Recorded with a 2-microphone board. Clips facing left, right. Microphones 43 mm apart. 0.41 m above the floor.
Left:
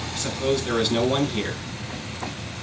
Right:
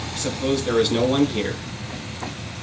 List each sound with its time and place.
0.1 s a man speaking: centre (ahead or behind), 3 m